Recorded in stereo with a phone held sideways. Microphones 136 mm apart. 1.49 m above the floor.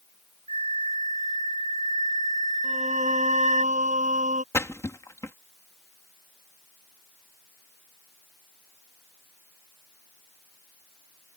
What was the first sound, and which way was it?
A flute, 70° right (ahead or behind).